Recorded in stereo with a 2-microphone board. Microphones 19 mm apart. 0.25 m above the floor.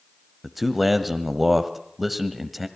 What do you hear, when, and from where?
0.4 s a man speaking: 5° right (ahead or behind), 1.2 m